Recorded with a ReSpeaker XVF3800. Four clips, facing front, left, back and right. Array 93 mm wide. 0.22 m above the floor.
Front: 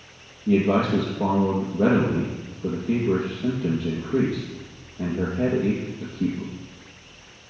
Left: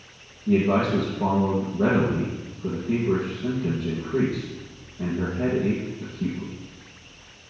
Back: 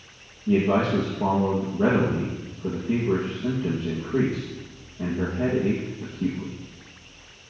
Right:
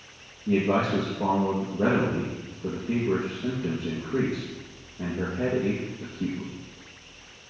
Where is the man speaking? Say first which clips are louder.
Left 3 dB, front 1 dB; 15° right, 3.5 m.